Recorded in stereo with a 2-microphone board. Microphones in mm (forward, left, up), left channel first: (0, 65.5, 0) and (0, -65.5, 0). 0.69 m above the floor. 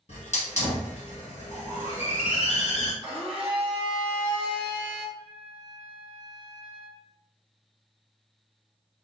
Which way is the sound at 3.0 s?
40° left (ahead or behind).